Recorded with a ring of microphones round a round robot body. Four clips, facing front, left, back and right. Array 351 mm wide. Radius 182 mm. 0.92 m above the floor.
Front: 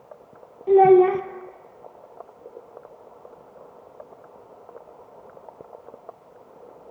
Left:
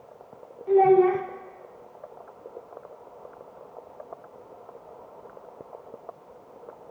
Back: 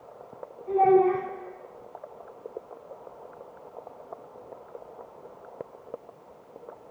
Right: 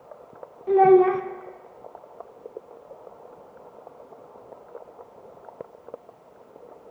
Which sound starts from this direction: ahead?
A child speaking, at 0.7 s.